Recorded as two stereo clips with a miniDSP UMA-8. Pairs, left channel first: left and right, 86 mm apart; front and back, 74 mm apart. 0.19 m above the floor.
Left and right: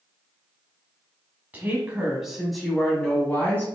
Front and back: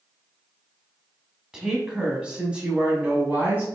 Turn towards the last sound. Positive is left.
turn(degrees=135)